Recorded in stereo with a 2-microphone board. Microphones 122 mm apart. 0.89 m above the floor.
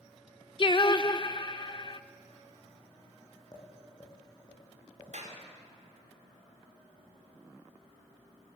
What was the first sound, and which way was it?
Singing, 40° left (ahead or behind).